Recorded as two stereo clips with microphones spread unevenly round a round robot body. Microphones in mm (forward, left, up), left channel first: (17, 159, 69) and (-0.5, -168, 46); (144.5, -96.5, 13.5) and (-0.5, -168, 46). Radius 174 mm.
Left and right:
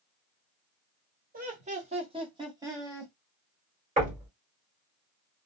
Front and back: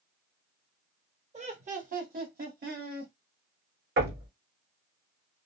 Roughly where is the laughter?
Behind right.